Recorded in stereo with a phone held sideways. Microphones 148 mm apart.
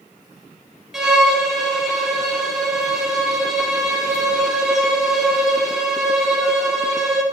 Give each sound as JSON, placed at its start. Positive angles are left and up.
{"t": 0.9, "sound": "a violin", "side_deg": -5, "distance_m": 0.5}